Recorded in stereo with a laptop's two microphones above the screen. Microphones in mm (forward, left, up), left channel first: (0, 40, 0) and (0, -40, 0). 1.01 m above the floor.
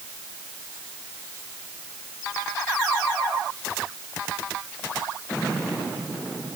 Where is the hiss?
I don't hear a hiss.